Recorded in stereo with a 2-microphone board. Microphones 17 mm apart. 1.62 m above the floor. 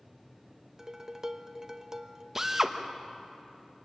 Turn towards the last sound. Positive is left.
turn(degrees=-25)  # may be behind; listen again after turning